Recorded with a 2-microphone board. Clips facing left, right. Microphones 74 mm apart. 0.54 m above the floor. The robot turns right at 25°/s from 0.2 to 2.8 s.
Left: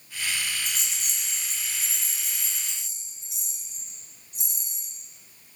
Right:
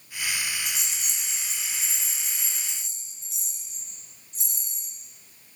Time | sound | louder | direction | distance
0.7 | a rattle | even | 5° right (ahead or behind) | 0.7 m